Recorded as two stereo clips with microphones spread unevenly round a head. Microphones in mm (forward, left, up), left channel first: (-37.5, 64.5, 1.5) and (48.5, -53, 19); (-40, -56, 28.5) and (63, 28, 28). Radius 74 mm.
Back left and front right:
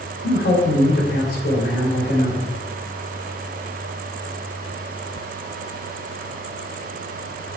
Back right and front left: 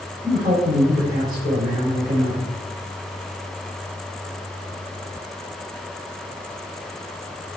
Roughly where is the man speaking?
Left.